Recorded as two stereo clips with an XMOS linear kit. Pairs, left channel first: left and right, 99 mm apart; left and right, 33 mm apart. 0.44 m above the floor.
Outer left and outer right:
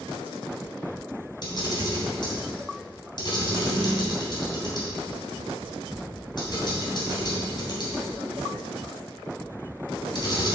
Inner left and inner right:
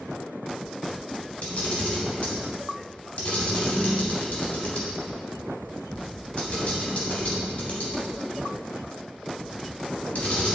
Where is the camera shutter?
50° left (ahead or behind), 3 m.